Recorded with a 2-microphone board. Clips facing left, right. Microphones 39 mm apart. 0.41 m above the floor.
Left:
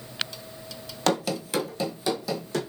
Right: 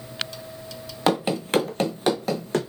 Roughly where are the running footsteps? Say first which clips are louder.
Right 3 dB; centre.